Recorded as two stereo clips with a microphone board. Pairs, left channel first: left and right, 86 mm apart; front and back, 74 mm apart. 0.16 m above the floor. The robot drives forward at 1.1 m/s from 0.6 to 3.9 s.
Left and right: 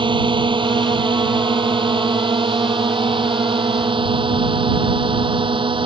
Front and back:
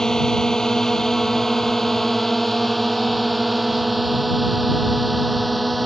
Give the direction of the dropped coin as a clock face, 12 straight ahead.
No dropped coin in this recording.